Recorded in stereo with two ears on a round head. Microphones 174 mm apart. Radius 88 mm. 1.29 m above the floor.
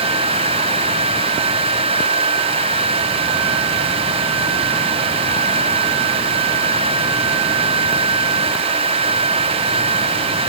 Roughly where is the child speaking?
No child speaking in this recording.